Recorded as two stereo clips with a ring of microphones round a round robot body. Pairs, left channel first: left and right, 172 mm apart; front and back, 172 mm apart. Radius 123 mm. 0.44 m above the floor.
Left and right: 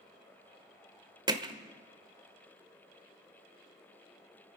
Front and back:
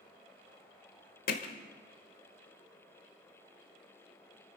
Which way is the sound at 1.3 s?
30° right.